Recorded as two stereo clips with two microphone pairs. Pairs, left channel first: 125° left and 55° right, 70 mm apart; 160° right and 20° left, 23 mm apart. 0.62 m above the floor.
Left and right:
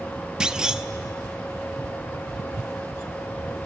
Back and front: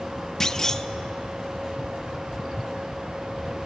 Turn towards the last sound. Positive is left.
turn(degrees=-115)